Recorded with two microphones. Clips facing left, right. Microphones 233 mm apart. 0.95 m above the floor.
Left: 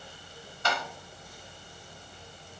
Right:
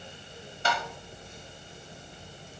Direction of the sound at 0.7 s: 30° right (ahead or behind).